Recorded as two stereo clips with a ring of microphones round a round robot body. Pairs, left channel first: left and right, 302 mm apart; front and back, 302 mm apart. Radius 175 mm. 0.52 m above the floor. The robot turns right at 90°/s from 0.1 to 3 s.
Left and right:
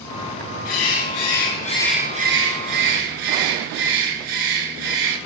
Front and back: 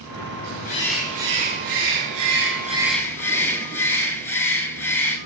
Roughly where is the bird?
Ahead left.